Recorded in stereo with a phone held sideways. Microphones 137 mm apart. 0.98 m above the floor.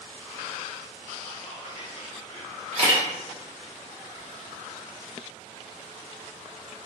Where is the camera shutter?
55° right (ahead or behind), 1.2 m.